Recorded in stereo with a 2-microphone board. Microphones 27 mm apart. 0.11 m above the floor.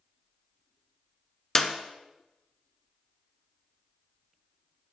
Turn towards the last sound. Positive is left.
turn(degrees=10)  # may be behind; listen again after turning